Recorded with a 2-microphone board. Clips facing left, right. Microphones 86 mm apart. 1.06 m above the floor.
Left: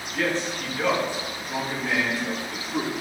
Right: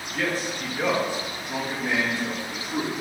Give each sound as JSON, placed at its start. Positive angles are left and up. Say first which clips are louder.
{"t": 0.1, "sound": "a man speaking", "louder": "left 1 dB", "side_deg": 0, "distance_m": 1.0}